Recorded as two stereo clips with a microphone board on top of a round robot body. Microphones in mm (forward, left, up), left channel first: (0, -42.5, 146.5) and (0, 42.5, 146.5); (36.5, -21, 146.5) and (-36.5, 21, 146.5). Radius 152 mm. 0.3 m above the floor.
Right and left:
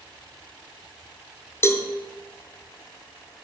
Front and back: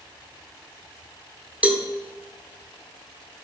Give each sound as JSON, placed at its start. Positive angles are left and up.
{"t": 1.6, "sound": "a cowbell", "azimuth_deg": -140, "distance_m": 1.3}